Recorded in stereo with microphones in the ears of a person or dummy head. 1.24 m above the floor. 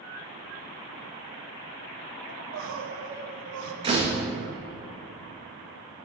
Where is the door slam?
25° right (ahead or behind), 1.0 m.